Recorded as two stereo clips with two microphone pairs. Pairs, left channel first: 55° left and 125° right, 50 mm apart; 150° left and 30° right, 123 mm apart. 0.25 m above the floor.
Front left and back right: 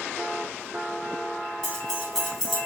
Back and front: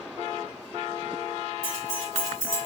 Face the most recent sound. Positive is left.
turn(degrees=130)